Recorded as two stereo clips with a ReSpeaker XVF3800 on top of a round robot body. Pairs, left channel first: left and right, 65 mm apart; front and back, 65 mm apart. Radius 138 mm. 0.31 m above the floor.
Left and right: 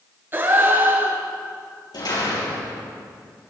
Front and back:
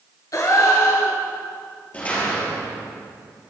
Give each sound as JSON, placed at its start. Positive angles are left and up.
{"t": 0.3, "sound": "a gasp", "azimuth_deg": -30, "distance_m": 5.0}
{"t": 1.9, "sound": "a door slam", "azimuth_deg": 70, "distance_m": 7.0}